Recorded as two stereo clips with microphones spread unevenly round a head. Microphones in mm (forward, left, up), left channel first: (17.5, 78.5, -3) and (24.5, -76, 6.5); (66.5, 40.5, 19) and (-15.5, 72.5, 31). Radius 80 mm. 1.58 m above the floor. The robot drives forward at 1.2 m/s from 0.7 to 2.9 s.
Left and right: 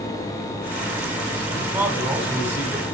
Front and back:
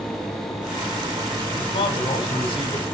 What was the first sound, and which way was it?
A man speaking, 10° right.